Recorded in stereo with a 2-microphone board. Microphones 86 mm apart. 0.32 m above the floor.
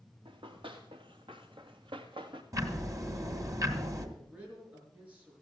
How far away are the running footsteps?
About 3 m.